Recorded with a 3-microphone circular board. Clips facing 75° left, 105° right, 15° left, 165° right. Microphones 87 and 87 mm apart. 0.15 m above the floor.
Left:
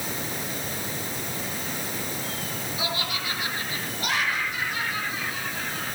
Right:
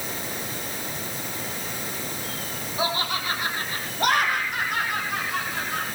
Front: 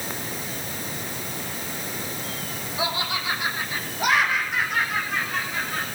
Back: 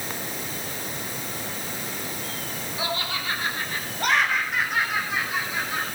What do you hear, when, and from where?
2.8 s laughter: 55° right, 5 m; by 5.9 s 90° right, 5.5 m